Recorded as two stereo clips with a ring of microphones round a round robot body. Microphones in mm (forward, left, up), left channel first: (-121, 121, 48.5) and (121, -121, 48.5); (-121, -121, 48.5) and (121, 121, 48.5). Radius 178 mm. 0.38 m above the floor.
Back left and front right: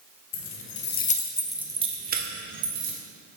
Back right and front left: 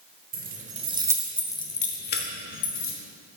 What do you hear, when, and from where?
0.3 s keys jangling: 100° left, 1.1 m; by 2.9 s 90° right, 1.4 m